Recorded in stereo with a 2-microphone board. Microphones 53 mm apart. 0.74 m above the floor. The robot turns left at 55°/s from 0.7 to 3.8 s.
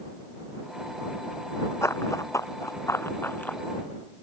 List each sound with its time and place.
1.8 s running footsteps: 60° left (ahead or behind); by 3.6 s 30° left (ahead or behind)